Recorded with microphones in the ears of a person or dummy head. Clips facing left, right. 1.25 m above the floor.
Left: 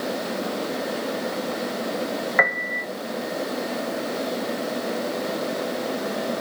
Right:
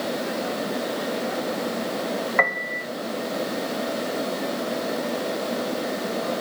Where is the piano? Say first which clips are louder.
Even; 5° left (ahead or behind), 1.0 m.